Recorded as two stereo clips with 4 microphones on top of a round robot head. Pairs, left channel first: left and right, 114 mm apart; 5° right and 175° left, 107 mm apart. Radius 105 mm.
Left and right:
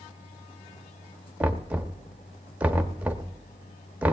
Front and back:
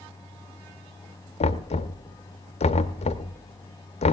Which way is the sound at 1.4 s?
10° right.